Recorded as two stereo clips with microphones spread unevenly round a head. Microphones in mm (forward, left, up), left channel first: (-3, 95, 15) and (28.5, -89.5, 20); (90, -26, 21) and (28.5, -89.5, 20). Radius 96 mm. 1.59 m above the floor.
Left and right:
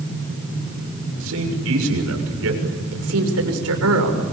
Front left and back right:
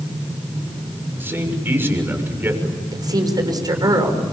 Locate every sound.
1.2 s a man speaking: 70° right, 7 m
2.9 s a woman speaking: 90° right, 6 m